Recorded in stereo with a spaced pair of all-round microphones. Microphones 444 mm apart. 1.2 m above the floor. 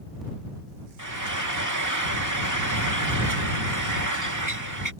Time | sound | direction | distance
1.0 | frying | 40° right (ahead or behind) | ?